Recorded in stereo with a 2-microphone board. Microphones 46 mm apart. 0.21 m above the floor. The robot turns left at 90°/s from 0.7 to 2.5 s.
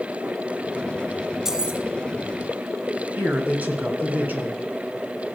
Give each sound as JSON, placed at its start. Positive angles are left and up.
{"t": 1.4, "sound": "keys jangling", "azimuth_deg": -10, "distance_m": 1.2}
{"t": 3.2, "sound": "a man speaking", "side_deg": -40, "distance_m": 2.5}